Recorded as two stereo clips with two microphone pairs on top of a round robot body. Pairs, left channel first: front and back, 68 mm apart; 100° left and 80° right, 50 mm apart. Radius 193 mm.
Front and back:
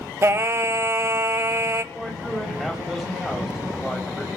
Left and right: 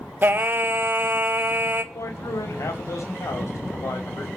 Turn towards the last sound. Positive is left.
turn(degrees=90)